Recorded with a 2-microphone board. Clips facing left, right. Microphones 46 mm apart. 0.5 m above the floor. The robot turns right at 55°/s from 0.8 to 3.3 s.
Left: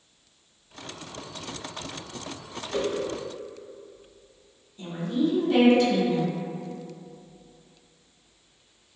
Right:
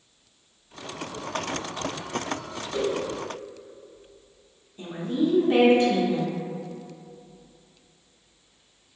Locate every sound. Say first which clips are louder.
2.7 s a whoosh: right 1 dB; 35° left (ahead or behind), 2.0 m; by 3.0 s 50° left (ahead or behind), 2.0 m
4.8 s a woman speaking: right 1 dB; 30° right (ahead or behind), 1.0 m